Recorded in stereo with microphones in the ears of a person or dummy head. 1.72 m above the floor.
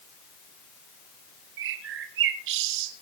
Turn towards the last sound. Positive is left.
turn(degrees=-65)  # may be behind; listen again after turning